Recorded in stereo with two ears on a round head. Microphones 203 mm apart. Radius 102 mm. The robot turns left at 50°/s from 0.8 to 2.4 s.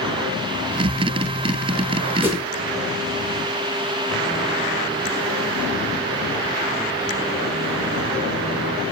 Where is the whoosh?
10° right (ahead or behind), 1.7 m; by 2.4 s 15° right (ahead or behind), 1.7 m.